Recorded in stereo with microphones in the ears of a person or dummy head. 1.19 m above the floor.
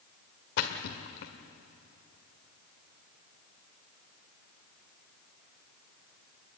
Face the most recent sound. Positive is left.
turn(degrees=65)  # may be behind; listen again after turning